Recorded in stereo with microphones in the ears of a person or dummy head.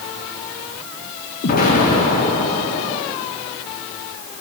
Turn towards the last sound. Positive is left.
turn(degrees=50)  # may be behind; listen again after turning